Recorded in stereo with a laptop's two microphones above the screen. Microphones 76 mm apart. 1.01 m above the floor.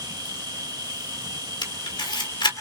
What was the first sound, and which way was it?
An insect, 55° right (ahead or behind).